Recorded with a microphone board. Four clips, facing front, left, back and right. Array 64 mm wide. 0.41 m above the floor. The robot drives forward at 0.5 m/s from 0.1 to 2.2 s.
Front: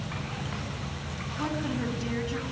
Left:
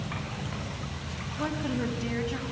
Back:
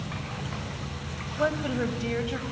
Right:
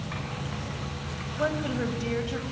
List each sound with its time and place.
1.4 s a woman speaking: 155° right, 2.5 m